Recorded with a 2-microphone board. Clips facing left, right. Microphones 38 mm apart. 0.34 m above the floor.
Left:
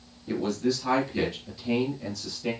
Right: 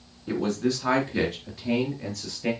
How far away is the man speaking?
About 3.5 m.